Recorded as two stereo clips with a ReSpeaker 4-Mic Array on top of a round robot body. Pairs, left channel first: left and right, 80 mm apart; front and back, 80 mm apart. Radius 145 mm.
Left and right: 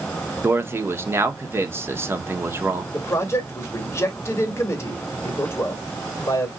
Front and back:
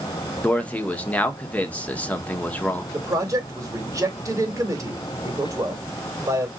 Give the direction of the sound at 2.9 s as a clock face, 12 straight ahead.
7 o'clock.